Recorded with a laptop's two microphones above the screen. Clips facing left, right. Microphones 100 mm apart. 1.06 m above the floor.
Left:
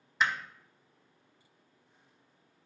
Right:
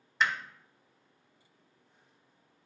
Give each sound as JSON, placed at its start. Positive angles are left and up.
{"t": 0.2, "sound": "hammering", "side_deg": 5, "distance_m": 1.2}